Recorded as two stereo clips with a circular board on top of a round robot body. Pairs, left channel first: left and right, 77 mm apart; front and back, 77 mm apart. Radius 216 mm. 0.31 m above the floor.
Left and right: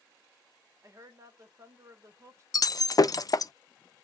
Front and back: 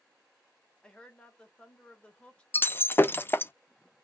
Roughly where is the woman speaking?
Right.